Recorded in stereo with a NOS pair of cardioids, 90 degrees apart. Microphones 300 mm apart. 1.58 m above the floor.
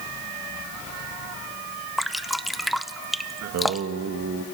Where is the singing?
65° right, 1.7 m.